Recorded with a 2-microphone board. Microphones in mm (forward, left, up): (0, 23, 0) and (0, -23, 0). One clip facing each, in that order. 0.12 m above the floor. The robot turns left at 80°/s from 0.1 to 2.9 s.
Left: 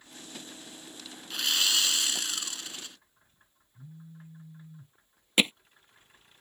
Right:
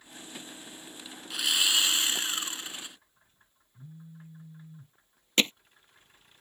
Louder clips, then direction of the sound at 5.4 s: Left 1 dB; 10° left (ahead or behind).